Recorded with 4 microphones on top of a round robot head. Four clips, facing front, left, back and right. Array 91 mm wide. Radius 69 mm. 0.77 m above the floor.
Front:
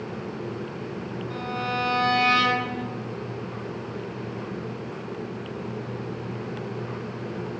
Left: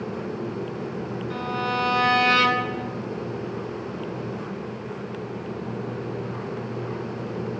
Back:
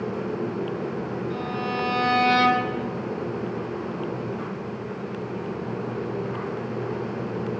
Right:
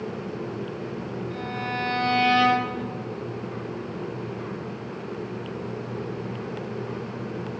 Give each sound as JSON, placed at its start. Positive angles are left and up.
{"t": 1.3, "sound": "a violin", "azimuth_deg": 85, "distance_m": 3.0}